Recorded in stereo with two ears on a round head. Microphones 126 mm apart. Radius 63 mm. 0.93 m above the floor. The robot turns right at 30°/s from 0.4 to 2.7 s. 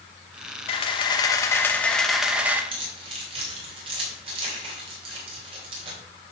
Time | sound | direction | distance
0.7 | a camera shutter | 135° left | 1.3 m
2.7 | keys jangling | 40° right (ahead or behind) | 3 m